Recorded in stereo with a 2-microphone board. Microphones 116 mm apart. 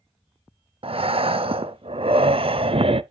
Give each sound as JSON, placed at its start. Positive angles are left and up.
{"t": 0.8, "sound": "breathing", "side_deg": -55, "distance_m": 0.5}